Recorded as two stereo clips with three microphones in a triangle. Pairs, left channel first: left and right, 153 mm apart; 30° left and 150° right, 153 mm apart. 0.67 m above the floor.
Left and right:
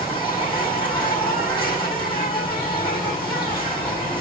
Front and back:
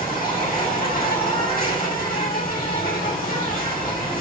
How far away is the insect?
About 6 m.